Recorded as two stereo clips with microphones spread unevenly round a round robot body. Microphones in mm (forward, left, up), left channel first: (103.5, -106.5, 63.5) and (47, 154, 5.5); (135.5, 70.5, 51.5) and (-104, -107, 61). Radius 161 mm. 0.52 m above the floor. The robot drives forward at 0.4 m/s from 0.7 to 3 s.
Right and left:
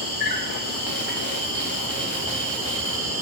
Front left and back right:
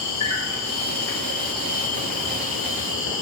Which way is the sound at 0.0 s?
65° left.